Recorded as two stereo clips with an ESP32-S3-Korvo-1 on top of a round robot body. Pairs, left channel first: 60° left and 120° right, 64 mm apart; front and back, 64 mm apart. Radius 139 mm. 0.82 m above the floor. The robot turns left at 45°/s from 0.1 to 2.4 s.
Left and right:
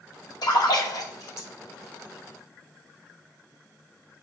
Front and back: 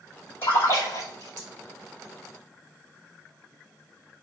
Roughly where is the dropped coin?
I don't hear a dropped coin.